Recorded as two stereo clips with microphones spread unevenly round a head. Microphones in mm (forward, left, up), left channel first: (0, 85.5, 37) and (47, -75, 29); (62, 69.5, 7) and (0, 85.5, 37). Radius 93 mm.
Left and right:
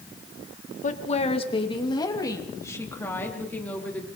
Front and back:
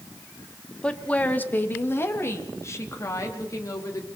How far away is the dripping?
I don't hear dripping.